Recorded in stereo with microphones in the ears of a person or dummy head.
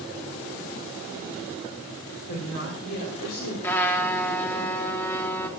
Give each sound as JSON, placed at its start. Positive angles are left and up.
{"t": 2.3, "sound": "a woman speaking", "side_deg": 60, "distance_m": 5.5}
{"t": 3.6, "sound": "a trumpet", "side_deg": 10, "distance_m": 1.7}